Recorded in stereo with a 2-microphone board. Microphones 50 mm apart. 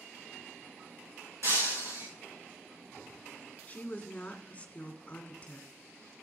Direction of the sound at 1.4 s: 70° right (ahead or behind).